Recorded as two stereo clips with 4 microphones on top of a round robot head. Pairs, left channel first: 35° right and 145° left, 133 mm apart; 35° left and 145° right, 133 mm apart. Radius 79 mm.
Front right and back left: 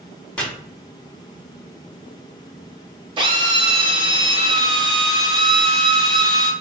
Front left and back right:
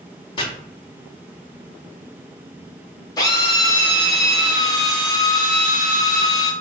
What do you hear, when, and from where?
0.4 s chopping: 40° left, 1.1 m
3.2 s a drill: 95° left, 1.1 m